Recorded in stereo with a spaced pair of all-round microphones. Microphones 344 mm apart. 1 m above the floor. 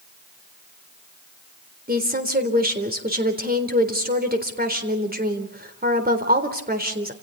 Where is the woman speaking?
25° right (ahead or behind), 3.5 m.